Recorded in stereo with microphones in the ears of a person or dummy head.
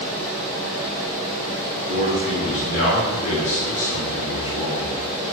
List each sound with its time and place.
1.9 s a man speaking: 80° left, 4.5 m